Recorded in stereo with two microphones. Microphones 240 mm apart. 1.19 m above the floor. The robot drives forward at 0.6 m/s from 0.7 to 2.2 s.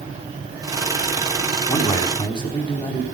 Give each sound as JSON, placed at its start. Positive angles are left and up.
{"t": 1.7, "sound": "a man speaking", "side_deg": 20, "distance_m": 3.5}